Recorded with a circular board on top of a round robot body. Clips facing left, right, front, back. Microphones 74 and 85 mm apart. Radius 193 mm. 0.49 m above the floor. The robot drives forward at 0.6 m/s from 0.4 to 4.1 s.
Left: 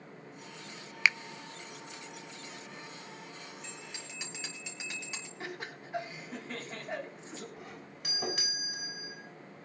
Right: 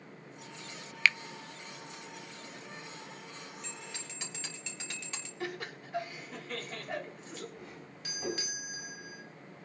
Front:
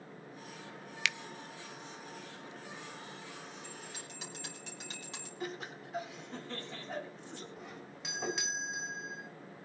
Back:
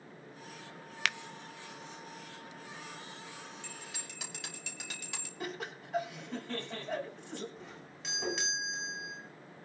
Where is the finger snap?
155° left, 0.5 m; by 1.2 s 160° left, 0.6 m.